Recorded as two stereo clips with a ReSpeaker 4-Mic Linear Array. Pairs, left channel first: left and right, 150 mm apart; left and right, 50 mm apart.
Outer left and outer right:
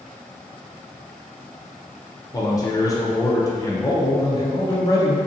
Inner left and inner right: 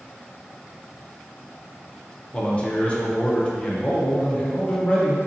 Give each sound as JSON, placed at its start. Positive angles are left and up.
{"t": 2.3, "sound": "a man speaking", "side_deg": 25, "distance_m": 0.6}